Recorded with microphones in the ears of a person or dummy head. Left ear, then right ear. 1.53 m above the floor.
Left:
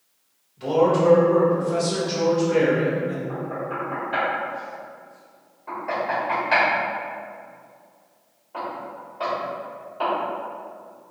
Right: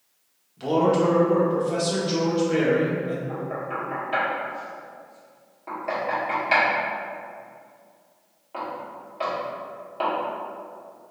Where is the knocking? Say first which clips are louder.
Left 1 dB; 50° right (ahead or behind), 2.0 m.